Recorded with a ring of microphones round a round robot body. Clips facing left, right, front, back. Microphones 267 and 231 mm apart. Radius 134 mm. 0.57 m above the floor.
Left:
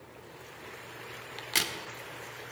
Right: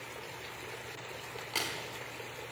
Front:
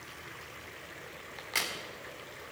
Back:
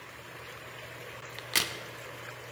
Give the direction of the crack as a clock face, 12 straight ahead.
7 o'clock.